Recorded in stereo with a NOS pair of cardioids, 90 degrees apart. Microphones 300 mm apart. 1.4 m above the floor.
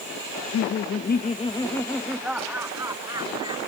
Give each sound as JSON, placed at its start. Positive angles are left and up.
{"t": 0.3, "sound": "laughter", "azimuth_deg": 70}